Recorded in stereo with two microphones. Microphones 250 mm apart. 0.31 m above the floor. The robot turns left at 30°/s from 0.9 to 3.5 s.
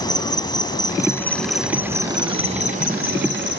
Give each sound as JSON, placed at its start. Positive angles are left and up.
{"t": 0.0, "sound": "an insect", "azimuth_deg": 20}